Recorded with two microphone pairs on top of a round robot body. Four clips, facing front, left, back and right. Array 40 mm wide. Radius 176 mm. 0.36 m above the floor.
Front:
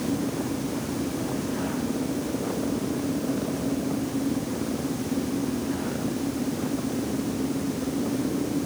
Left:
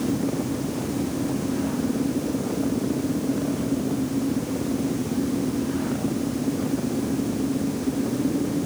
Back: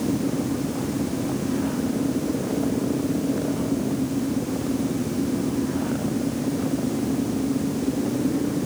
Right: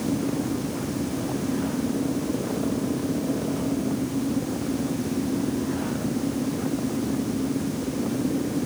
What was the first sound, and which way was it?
Only background noise.